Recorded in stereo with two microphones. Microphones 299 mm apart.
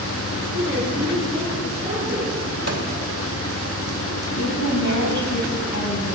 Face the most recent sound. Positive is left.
turn(degrees=70)  # may be behind; listen again after turning